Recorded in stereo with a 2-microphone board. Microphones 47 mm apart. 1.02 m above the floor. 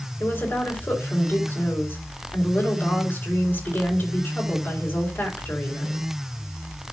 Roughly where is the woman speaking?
Left.